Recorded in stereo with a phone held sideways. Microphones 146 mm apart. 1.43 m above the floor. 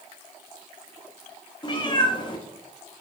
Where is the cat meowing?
30° left (ahead or behind), 0.9 m.